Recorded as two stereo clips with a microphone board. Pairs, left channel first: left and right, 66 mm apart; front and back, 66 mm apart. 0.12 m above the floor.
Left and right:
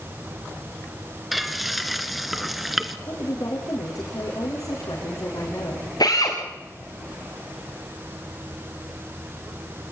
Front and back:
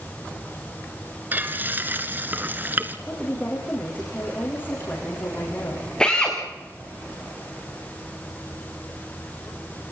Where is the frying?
Straight behind, 1.5 m.